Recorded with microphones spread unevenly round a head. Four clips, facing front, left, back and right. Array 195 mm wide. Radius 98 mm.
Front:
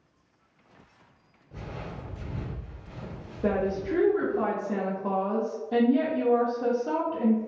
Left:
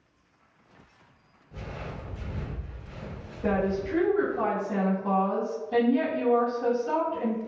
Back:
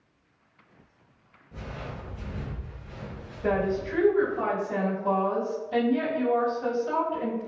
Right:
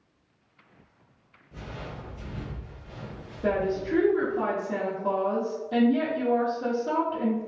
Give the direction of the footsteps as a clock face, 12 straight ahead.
12 o'clock.